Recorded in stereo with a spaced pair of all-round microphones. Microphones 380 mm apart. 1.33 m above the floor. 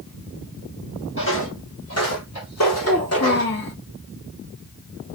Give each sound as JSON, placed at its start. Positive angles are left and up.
{"t": 1.2, "sound": "footsteps", "side_deg": 30, "distance_m": 1.6}
{"t": 2.8, "sound": "a child speaking", "side_deg": 60, "distance_m": 1.4}